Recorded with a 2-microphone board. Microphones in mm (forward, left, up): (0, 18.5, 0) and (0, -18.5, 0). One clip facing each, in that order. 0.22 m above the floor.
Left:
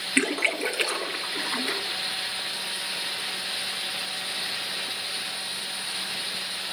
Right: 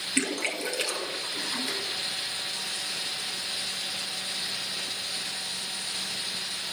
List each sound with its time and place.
0.2 s a splash: 25° left (ahead or behind), 1.5 m